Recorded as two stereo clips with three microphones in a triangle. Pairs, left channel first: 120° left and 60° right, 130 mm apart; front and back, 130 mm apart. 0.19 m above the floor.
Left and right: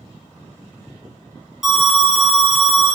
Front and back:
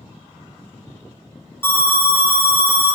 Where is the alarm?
20° left, 0.6 m.